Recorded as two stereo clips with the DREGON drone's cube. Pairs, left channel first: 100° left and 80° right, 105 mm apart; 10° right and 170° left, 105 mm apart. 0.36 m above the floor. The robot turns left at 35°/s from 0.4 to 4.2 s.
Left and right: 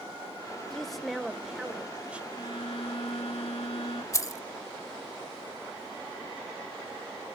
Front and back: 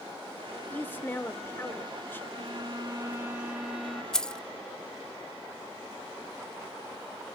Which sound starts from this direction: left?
Keys jangling, at 4.1 s.